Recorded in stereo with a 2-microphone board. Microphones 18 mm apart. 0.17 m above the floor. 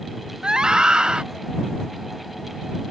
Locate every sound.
0.4 s a scream: 50° right (ahead or behind)